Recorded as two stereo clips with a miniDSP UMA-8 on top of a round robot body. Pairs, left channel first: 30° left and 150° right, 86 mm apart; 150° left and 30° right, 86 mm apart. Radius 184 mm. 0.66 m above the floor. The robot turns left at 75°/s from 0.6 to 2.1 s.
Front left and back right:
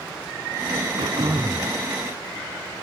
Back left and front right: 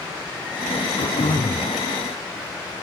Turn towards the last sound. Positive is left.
turn(degrees=90)